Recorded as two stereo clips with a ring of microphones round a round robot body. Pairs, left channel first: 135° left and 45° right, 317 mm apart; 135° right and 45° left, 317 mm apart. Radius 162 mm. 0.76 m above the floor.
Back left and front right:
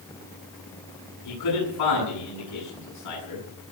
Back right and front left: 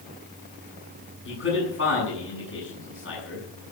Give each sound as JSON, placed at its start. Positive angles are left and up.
{"t": 1.2, "sound": "a man speaking", "azimuth_deg": 170, "distance_m": 7.5}